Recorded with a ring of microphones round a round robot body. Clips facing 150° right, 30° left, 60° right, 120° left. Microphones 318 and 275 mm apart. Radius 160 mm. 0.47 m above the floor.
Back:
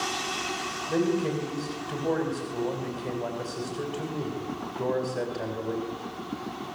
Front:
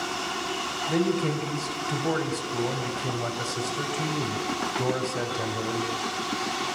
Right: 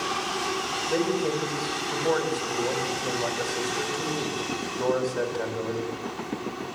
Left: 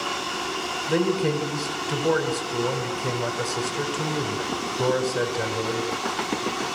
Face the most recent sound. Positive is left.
turn(degrees=75)